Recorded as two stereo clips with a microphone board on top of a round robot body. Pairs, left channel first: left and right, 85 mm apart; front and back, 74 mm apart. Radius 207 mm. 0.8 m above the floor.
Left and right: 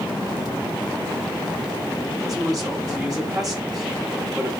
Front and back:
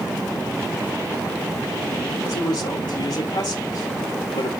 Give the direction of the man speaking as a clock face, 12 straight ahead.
12 o'clock.